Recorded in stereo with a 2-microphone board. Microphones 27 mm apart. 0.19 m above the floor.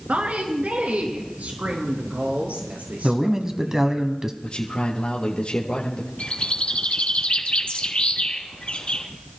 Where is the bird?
45° left (ahead or behind), 1.9 m.